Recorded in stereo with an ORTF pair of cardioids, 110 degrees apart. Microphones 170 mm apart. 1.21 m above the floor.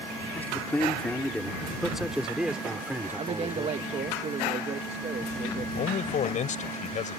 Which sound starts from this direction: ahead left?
A man speaking, at 5.8 s.